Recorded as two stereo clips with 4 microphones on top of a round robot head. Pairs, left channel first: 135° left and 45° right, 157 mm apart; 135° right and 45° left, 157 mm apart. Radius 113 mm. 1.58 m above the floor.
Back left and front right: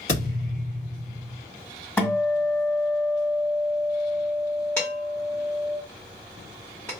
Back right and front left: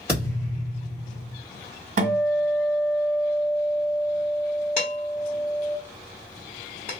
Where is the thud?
120° left, 1.3 m.